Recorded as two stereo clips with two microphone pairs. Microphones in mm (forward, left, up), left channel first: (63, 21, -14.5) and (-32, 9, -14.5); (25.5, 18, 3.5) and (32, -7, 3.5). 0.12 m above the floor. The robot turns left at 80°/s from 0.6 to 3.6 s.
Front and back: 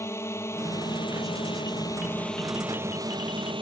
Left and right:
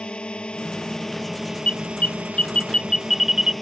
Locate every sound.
0.0 s a drone: 65° left; by 3.6 s 175° right
1.7 s an alarm: 135° left; by 3.5 s 15° right